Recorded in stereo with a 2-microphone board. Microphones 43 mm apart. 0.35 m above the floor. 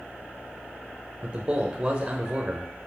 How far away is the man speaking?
About 1.3 m.